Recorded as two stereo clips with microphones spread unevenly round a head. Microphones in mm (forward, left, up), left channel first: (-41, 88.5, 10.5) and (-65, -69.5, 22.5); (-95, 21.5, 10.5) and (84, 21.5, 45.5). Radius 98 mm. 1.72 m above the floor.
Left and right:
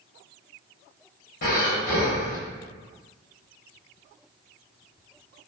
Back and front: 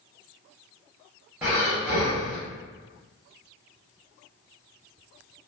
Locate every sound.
1.4 s breathing: 75° left, 1.2 m